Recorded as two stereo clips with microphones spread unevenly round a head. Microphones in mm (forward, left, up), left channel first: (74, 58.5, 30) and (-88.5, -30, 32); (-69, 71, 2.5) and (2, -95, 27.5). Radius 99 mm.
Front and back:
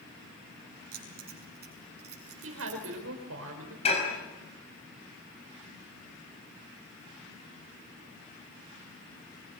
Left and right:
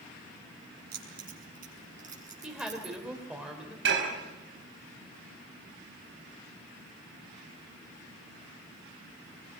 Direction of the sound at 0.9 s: 105° right.